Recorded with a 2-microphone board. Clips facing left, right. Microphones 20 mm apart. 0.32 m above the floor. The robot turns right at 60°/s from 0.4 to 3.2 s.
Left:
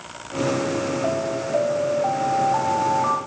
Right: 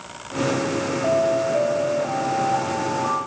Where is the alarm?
20° left, 1.9 m; by 3.2 s 145° left, 1.9 m.